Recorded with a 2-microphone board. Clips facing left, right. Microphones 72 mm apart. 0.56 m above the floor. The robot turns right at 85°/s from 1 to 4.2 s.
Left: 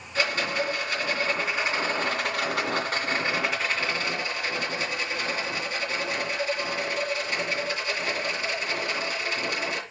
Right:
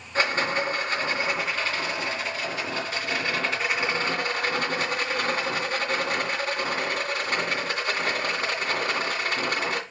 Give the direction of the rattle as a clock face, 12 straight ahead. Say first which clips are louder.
Right 2 dB; 1 o'clock.